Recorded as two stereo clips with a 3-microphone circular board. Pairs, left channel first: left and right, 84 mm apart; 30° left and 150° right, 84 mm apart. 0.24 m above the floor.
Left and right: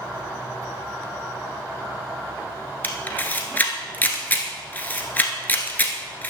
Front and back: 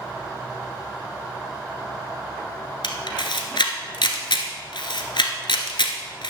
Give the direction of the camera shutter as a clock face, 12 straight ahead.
11 o'clock.